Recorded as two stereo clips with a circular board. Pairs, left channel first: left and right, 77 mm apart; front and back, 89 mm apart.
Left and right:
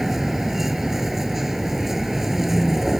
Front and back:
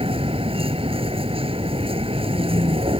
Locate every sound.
0.0 s a vehicle: 175° right